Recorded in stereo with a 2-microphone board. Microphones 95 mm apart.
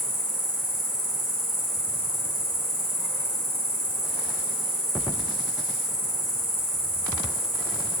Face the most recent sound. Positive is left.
turn(degrees=50)  # may be behind; listen again after turning